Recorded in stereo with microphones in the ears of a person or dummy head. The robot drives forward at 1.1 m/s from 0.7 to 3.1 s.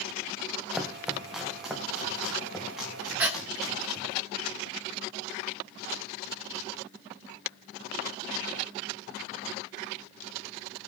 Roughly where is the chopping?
Centre.